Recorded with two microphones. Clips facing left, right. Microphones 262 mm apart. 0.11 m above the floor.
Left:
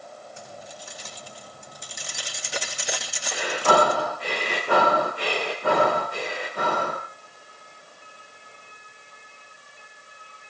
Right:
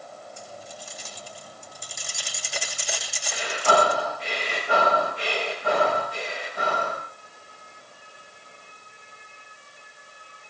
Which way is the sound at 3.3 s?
60° left (ahead or behind).